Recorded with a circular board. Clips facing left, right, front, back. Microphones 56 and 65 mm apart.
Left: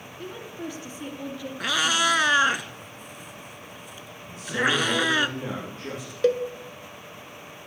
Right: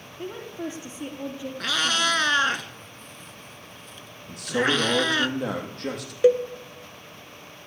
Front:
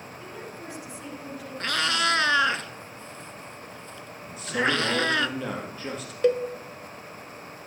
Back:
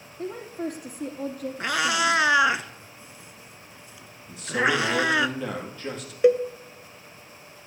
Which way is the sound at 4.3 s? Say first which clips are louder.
Right 1 dB, back 2 dB; 85° right.